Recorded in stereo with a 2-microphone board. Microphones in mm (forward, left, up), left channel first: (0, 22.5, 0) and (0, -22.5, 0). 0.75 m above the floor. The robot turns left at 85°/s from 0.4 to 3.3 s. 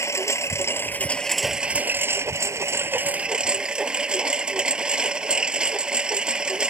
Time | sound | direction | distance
0.0 | a lawn mower | 85° left | ?